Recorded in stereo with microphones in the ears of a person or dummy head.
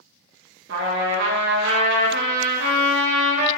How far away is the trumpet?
About 1.4 m.